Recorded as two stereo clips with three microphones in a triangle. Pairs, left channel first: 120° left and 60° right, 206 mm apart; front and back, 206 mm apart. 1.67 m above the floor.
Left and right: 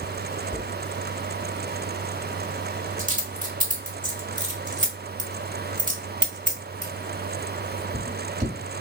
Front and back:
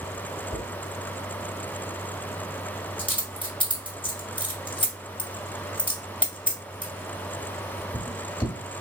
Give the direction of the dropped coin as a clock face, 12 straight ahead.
2 o'clock.